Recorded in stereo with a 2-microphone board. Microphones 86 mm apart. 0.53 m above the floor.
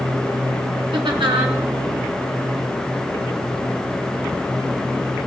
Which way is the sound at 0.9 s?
70° right (ahead or behind).